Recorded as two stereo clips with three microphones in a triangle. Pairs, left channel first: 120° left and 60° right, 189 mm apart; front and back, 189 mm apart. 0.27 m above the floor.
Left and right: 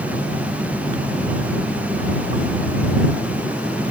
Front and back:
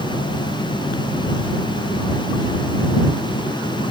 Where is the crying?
No crying in this recording.